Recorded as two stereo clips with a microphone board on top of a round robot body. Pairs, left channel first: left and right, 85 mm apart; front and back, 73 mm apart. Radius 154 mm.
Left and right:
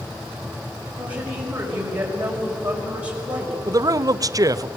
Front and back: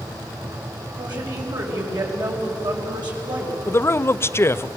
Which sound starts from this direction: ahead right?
A man speaking, at 3.7 s.